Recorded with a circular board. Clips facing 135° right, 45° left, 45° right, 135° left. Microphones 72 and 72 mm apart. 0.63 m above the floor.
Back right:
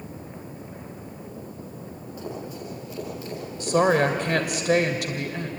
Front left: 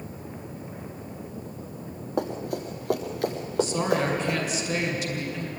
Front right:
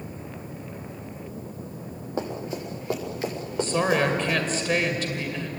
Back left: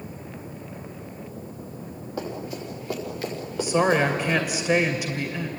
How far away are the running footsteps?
About 5.5 m.